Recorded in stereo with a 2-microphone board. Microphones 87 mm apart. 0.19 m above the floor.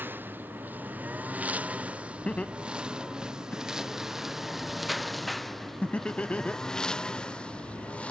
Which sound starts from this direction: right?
A lawn mower, at 0.0 s.